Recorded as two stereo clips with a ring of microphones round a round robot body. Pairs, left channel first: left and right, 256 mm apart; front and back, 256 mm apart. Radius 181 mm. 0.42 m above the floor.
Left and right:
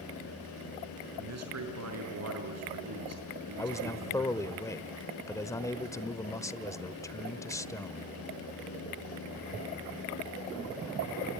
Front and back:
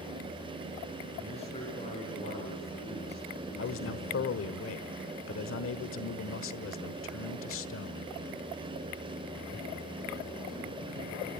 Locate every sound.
1.2 s a man speaking: 75° right, 5.5 m
3.6 s a man speaking: 15° left, 1.3 m